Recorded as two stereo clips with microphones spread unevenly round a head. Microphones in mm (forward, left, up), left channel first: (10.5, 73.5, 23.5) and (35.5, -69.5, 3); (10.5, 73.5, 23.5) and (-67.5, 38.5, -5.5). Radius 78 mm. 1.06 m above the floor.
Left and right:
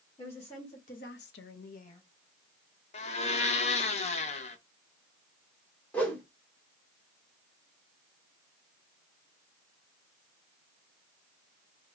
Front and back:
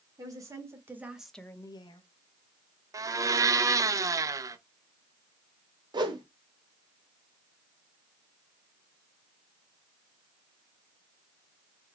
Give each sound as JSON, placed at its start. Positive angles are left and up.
{"t": 0.2, "sound": "a woman speaking", "azimuth_deg": 160, "distance_m": 2.0}
{"t": 2.9, "sound": "a blender", "azimuth_deg": 155, "distance_m": 0.6}
{"t": 5.9, "sound": "a whoosh", "azimuth_deg": -175, "distance_m": 1.1}